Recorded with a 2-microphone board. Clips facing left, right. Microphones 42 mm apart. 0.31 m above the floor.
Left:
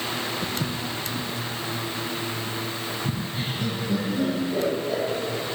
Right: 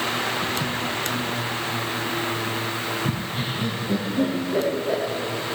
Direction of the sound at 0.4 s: 30° left (ahead or behind).